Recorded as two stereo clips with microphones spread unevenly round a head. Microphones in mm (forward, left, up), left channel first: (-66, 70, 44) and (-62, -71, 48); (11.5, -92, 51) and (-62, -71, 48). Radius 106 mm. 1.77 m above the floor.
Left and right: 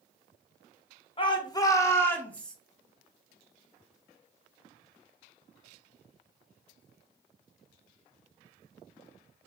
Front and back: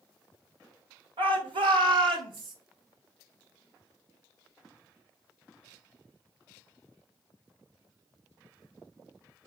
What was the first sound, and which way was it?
A shout, 145° left.